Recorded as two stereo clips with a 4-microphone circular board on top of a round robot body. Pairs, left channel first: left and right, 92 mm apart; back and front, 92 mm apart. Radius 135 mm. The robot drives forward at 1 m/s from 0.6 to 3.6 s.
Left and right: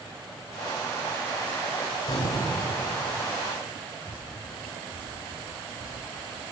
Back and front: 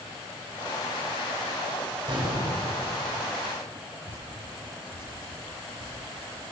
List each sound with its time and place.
2.1 s an explosion: 40° left, 5 m; by 2.7 s 45° left, 4.5 m
4.1 s dripping: 150° left, 8.5 m